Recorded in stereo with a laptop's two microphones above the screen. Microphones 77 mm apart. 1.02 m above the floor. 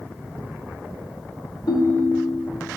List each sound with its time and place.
1.7 s a ringtone: 80° left, 1.1 m